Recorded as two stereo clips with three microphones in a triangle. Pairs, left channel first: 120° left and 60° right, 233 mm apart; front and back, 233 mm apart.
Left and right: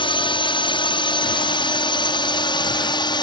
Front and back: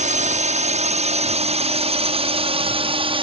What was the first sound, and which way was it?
A drone, 170° left.